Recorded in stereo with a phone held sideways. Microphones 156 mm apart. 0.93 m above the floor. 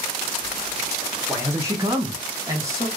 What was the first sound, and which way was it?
A man speaking, 10° right (ahead or behind).